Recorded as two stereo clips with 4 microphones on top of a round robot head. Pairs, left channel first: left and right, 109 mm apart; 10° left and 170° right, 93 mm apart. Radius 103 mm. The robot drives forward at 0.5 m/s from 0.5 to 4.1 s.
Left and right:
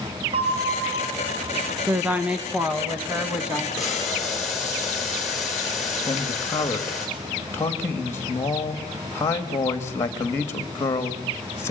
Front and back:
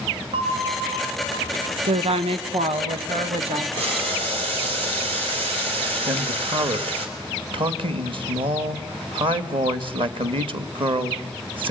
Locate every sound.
0.3 s a bell: 135° right, 1.5 m; by 1.8 s 145° right, 2.0 m
1.9 s a woman speaking: 165° right, 1.4 m; by 3.6 s 170° right, 2 m
3.8 s boiling: straight behind, 4 m
6.1 s a man speaking: 160° left, 1.7 m